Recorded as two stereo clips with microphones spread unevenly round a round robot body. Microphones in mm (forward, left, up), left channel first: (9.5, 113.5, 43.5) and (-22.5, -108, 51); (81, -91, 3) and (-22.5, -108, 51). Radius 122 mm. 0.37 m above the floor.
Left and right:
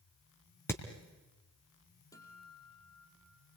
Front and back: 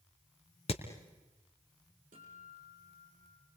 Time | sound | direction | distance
0.7 | hammering | straight ahead | 3 m
2.1 | a guitar | 160° left | 5 m